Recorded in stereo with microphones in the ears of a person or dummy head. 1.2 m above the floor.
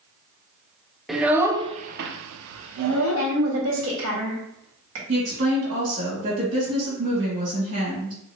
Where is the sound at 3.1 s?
80° right, 1.8 m.